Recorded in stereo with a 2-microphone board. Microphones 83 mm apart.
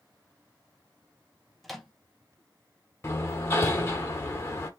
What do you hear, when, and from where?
1.6 s a microwave: centre (ahead or behind), 0.8 m
3.0 s hammering: 30° left (ahead or behind), 1.3 m